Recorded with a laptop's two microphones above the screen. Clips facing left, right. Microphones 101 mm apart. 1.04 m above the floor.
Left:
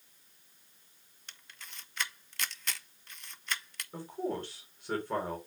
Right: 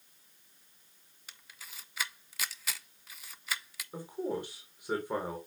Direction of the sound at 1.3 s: 5° right (ahead or behind).